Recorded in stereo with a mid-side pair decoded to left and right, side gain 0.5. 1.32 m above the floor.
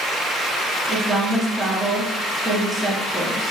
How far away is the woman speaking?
About 1.6 m.